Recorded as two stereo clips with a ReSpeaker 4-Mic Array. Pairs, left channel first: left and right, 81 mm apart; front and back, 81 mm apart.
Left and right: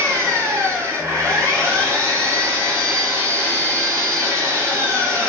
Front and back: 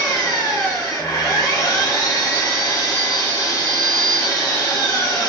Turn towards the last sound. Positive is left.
turn(degrees=-35)